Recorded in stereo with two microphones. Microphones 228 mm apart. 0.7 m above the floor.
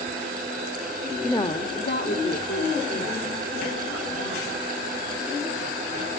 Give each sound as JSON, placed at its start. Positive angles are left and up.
{"t": 1.2, "sound": "a woman speaking", "side_deg": 10, "distance_m": 0.9}